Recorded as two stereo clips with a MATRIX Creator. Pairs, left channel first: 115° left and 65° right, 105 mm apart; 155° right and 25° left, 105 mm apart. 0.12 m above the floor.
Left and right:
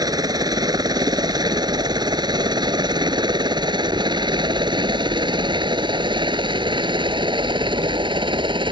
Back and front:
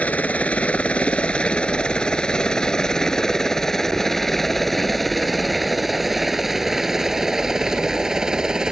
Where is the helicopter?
90° right; by 8.7 s 60° right.